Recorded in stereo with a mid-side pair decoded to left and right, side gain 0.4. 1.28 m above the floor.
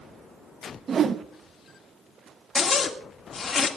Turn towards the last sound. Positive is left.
turn(degrees=45)